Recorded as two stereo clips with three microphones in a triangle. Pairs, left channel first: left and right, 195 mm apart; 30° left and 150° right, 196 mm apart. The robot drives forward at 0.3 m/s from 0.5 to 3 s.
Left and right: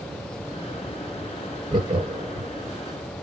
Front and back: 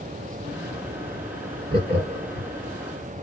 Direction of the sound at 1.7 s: 145° right.